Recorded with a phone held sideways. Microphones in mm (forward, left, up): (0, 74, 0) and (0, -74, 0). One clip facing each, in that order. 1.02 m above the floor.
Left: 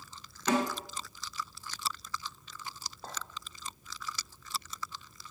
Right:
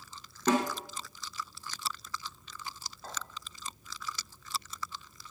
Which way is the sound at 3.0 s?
35° left (ahead or behind).